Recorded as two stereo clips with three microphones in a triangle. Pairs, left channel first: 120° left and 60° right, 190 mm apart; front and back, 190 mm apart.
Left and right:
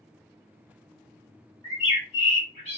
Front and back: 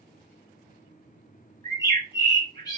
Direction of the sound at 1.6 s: 55° right.